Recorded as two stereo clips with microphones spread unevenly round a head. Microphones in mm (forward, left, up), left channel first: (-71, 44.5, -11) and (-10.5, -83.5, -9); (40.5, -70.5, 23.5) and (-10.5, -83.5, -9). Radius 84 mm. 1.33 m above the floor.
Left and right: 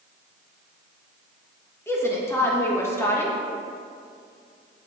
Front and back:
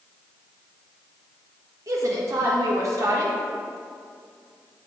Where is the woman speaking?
175° right, 1.6 m.